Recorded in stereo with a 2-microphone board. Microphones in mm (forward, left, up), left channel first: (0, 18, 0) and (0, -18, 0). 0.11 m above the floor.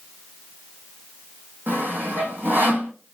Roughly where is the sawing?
Right.